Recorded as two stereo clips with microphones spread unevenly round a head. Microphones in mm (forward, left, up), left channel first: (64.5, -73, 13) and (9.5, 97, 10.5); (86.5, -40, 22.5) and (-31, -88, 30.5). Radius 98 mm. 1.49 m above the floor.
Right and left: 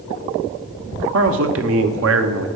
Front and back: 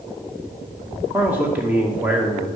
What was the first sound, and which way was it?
A man speaking, 120° left.